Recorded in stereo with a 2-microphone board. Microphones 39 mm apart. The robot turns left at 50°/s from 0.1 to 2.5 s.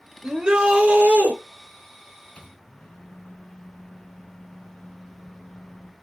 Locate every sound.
0.2 s a shout: 10° right, 0.9 m; by 1.4 s 65° right, 0.9 m
2.4 s a microwave: 30° left (ahead or behind), 0.8 m; by 5.9 s 25° left (ahead or behind), 0.8 m